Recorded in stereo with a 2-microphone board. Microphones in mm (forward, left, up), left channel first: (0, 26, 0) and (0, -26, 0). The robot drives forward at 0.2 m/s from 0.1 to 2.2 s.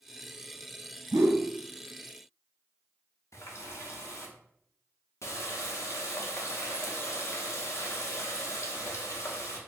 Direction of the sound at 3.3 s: 70° left (ahead or behind).